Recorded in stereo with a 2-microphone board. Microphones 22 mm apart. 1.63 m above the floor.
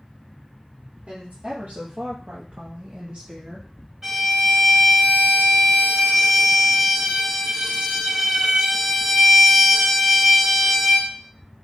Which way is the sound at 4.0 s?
20° right (ahead or behind).